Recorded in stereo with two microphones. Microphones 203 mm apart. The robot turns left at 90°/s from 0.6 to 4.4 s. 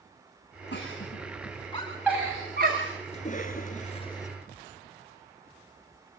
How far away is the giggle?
About 8.5 m.